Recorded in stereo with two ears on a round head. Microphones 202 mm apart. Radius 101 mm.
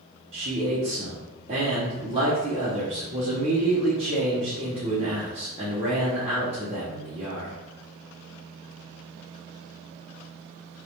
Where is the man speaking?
30° right (ahead or behind), 0.7 m.